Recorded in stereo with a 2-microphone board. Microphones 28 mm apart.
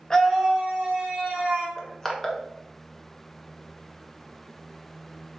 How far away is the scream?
About 1.0 m.